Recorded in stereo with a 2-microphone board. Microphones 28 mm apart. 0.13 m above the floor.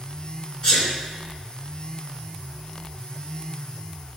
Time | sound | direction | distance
0.6 | a sneeze | 25° left (ahead or behind) | 2.0 m